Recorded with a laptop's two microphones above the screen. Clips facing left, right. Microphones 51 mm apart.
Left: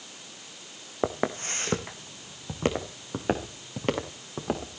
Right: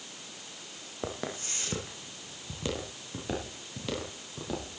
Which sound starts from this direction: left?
Footsteps, at 1.0 s.